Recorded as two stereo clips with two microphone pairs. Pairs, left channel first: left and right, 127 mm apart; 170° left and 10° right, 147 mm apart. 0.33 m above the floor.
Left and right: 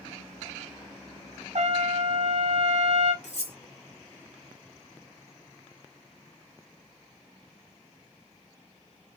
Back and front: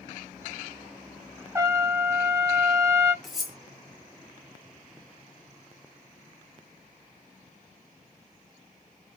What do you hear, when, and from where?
1.6 s a trumpet: 85° right, 0.6 m
3.2 s cutlery clinking: 80° left, 1.1 m